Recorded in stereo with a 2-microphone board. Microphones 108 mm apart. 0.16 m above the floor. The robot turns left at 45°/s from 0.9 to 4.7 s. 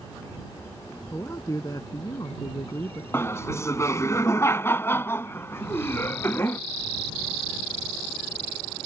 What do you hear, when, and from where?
1.1 s a man speaking: 145° left; by 3.0 s 60° left
3.1 s laughter: 25° left (ahead or behind); by 6.6 s 20° left (ahead or behind)